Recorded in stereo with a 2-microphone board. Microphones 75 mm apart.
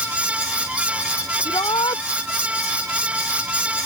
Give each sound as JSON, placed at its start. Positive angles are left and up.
{"t": 1.4, "sound": "a shout", "side_deg": 80}